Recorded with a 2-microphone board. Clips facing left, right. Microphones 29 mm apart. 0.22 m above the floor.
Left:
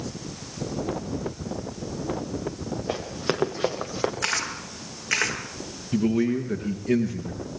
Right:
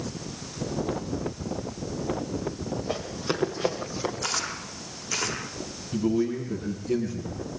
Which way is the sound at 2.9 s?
35° left (ahead or behind).